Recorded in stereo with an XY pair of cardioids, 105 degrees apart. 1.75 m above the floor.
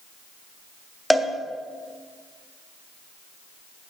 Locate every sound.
1.1 s a cowbell: straight ahead, 0.8 m